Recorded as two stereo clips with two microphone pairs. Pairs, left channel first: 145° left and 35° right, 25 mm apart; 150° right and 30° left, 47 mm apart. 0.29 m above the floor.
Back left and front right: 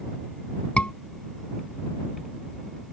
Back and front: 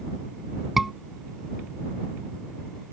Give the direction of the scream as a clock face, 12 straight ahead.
8 o'clock.